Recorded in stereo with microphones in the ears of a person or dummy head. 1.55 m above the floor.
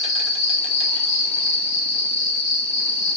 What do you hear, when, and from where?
0.0 s an insect: 30° left (ahead or behind), 1.6 m